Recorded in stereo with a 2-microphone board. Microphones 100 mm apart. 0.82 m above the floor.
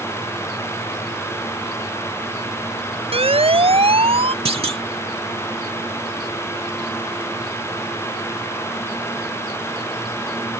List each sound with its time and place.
3.1 s a siren: 75° right (ahead or behind); by 4.3 s 70° right (ahead or behind)
4.5 s a clunk: 70° right (ahead or behind)